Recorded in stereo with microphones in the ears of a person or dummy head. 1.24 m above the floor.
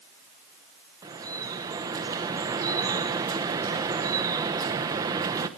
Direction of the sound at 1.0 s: 20° right (ahead or behind).